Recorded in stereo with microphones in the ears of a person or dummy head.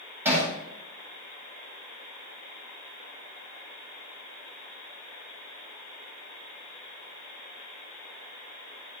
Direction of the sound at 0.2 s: 10° right (ahead or behind).